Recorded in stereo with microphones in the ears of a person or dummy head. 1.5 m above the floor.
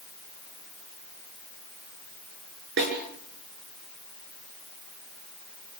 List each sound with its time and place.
2.8 s a snare drum: 60° right (ahead or behind), 7 m